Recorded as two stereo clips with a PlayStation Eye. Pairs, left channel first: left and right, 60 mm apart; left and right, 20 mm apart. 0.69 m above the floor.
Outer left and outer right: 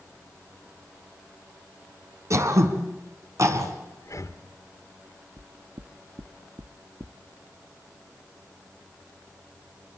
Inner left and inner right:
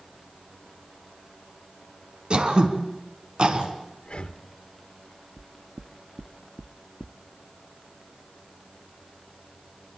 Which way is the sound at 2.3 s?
55° right (ahead or behind).